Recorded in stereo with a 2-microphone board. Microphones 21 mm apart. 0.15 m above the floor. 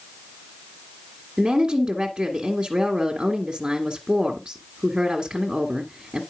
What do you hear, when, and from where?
1.4 s a woman speaking: 35° right (ahead or behind), 1.8 m